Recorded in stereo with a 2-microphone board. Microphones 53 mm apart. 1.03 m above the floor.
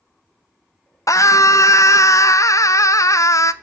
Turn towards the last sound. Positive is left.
turn(degrees=75)  # may be behind; listen again after turning